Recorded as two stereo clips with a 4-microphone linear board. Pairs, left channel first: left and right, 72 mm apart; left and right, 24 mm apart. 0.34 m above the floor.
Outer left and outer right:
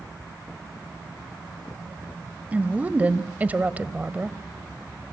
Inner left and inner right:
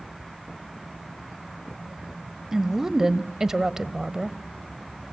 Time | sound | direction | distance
2.5 | a woman speaking | 20° right (ahead or behind) | 1.5 m